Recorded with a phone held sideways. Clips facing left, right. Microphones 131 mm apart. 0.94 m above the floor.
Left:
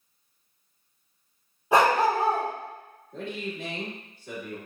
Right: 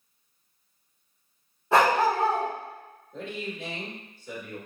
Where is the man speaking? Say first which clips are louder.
Left 1 dB; 60° left (ahead or behind), 1.8 m.